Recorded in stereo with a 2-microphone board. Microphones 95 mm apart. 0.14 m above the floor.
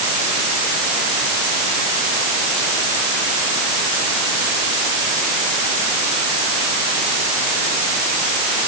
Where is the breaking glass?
No breaking glass in this recording.